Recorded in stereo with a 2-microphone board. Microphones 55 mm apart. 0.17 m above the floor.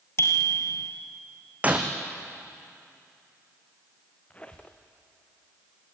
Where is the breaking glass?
25° right (ahead or behind), 2.5 m.